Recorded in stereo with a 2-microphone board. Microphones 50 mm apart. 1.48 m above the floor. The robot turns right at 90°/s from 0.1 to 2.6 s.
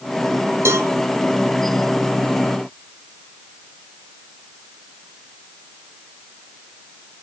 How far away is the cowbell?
About 1.1 m.